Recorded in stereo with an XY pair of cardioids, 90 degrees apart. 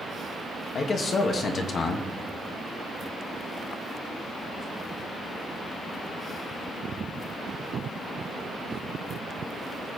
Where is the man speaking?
55° left, 2 m.